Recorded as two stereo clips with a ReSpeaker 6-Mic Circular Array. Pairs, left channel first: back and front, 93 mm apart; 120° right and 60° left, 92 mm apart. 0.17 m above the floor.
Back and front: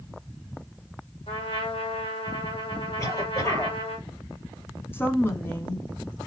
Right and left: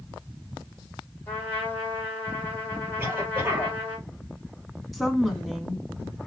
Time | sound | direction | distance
1.3 | a trumpet | 170° left | 3 m
3.0 | a cough | 120° left | 4 m
4.9 | a woman speaking | 155° left | 1.1 m